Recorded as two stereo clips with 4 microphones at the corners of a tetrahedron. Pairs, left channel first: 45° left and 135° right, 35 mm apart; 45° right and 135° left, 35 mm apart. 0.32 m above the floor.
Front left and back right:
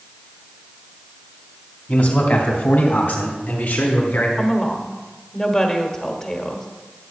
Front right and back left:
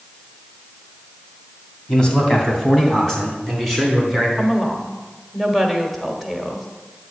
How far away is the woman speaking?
About 1.3 m.